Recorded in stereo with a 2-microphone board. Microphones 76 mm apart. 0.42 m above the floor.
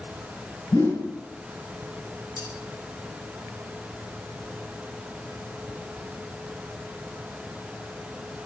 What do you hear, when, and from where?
0.7 s a whoosh: 80° left, 3 m
2.4 s cutlery clinking: 75° left (ahead or behind), 2 m